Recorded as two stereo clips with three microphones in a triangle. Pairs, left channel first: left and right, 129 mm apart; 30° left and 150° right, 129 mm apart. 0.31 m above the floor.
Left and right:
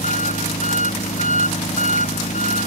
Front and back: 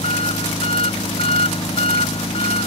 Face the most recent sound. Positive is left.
turn(degrees=70)